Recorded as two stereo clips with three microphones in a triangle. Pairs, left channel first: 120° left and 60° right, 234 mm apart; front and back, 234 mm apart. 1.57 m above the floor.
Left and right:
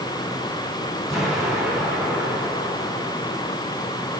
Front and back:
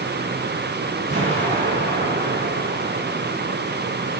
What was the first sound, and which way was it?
An explosion, 150° right.